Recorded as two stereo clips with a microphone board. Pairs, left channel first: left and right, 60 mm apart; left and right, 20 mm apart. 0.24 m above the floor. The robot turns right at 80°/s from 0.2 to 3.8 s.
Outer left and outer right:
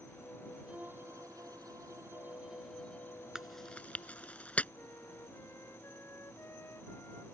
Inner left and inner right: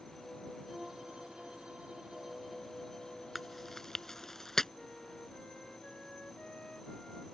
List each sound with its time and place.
0.7 s a violin: 160° right; by 4.3 s 90° left
3.4 s chewing: 10° right (ahead or behind); by 4.7 s 25° left (ahead or behind)
4.8 s a flute: 45° left (ahead or behind)